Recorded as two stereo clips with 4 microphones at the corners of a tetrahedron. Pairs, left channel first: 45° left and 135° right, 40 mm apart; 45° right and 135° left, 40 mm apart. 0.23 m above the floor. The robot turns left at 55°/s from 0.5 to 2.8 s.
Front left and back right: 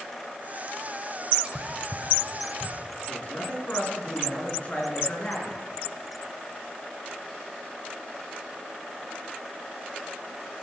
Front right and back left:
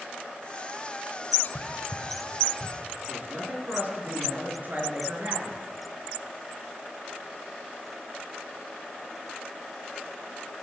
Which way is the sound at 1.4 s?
85° right.